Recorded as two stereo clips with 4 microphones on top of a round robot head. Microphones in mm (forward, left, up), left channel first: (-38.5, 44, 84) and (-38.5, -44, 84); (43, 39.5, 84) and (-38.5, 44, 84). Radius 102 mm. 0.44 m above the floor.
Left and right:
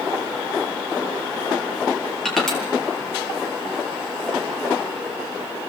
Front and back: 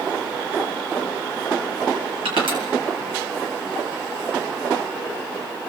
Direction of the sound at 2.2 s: 175° left.